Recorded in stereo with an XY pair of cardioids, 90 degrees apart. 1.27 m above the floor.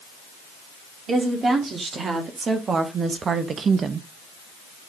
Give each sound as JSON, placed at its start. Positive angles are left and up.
{"t": 1.1, "sound": "a woman speaking", "azimuth_deg": -50, "distance_m": 3.0}